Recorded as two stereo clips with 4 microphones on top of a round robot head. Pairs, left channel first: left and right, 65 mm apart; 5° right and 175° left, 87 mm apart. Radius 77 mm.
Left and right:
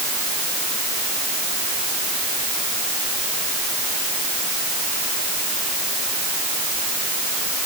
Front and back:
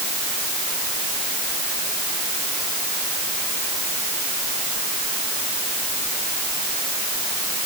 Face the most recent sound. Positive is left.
No sound to turn to.